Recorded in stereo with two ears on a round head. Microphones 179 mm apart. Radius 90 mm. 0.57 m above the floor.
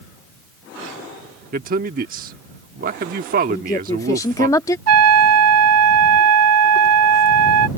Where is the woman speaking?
15° left (ahead or behind).